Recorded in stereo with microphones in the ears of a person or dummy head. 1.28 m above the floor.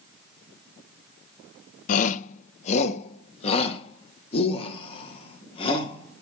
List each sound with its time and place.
1.9 s a shout: 45° left (ahead or behind), 0.6 m; by 6.2 s 30° left (ahead or behind), 3 m